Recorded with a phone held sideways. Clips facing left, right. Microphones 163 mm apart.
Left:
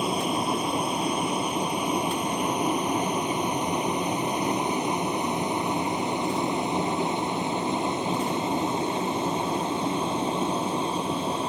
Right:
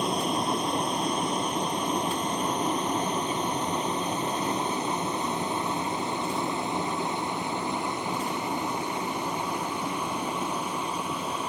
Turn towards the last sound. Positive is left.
turn(degrees=30)  # may be behind; listen again after turning